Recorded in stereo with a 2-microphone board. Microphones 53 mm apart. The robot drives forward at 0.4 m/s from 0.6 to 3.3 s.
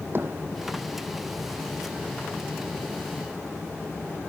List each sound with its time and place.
0.1 s hammering: 40° right (ahead or behind)